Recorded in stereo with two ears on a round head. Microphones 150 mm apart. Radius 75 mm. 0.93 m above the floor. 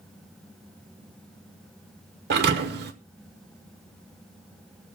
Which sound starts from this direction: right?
A thud, at 2.3 s.